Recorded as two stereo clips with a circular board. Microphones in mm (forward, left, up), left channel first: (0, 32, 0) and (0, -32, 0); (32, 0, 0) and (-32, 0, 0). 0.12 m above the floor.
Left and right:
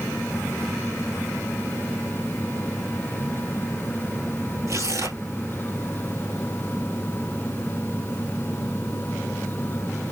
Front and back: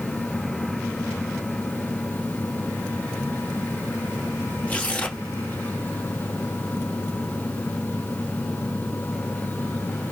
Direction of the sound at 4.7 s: 65° right.